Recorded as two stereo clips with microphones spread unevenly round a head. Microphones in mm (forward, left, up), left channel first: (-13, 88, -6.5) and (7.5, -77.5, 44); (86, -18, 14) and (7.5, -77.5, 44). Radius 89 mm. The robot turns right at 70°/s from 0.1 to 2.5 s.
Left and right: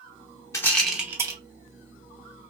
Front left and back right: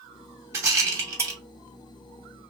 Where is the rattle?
175° right, 0.6 m; by 1.4 s 115° right, 0.6 m.